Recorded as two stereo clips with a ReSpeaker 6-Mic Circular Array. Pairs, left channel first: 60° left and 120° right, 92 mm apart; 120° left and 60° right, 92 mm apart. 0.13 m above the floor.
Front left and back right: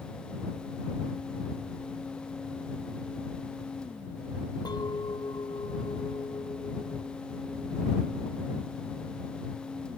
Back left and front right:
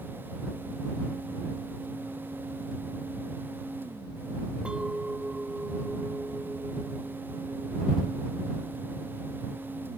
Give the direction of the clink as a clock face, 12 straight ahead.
11 o'clock.